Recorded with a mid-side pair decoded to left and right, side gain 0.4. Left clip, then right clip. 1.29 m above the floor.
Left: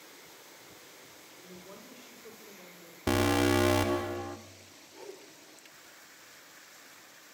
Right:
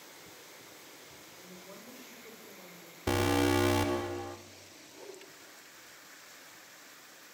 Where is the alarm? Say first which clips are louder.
Left 2 dB; 45° left, 1.8 m.